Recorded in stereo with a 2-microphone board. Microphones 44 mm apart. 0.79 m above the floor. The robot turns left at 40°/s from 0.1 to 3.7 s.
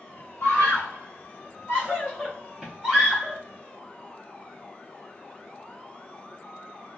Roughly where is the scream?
Left.